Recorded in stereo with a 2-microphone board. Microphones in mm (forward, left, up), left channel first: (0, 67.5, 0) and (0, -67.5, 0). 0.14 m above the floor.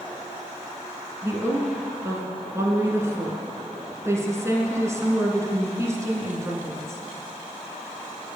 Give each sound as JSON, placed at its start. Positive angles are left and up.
{"t": 1.2, "sound": "a woman speaking", "side_deg": -20, "distance_m": 1.3}